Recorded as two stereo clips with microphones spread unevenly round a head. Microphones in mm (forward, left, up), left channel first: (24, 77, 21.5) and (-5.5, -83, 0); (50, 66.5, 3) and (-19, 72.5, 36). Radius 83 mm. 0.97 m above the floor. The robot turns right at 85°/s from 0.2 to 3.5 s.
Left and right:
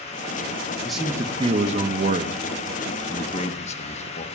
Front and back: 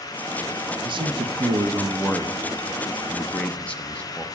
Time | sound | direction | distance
0.8 | a man speaking | 170° left | 1.0 m